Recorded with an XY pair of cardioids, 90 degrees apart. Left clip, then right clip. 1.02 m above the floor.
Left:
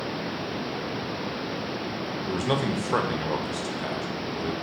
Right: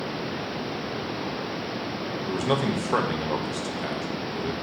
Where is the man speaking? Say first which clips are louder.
Right 1 dB; straight ahead, 0.8 m.